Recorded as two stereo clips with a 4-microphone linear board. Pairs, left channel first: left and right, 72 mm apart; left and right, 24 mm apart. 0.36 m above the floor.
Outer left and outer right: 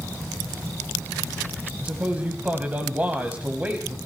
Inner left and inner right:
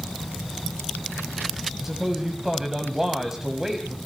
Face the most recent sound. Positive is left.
turn(degrees=-20)  # may be behind; listen again after turning